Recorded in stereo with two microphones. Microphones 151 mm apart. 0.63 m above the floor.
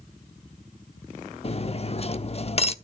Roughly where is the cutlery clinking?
Left.